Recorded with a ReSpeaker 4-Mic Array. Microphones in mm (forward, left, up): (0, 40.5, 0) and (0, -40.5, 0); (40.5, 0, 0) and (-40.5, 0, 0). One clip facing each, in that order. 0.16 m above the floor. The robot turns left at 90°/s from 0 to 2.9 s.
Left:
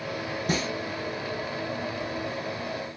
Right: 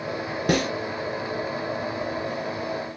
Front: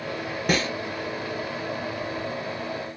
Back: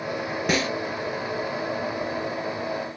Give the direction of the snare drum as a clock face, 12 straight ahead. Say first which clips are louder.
Right 7 dB, even; 3 o'clock.